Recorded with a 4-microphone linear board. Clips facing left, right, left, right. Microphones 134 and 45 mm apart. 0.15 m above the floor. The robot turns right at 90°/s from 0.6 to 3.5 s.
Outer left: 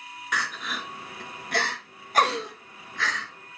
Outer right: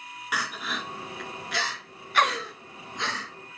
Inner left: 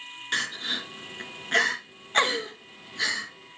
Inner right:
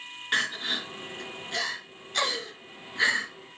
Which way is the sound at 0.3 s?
10° right (ahead or behind).